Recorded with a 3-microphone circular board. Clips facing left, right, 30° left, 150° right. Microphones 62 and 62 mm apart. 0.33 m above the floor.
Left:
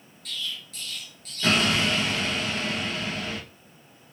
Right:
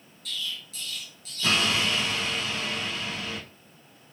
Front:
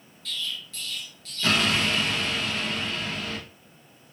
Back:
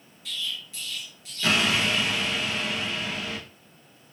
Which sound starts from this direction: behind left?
An explosion, at 0.2 s.